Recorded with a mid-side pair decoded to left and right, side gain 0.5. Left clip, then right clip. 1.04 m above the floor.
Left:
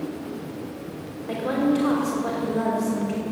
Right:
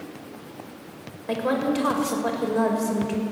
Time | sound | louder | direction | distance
1.3 | a woman speaking | even | 45° right | 5 m